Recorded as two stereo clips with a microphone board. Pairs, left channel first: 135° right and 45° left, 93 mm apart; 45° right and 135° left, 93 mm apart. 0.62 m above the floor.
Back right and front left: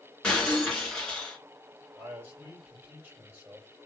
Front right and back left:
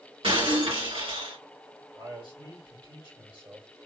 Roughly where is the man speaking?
Behind left.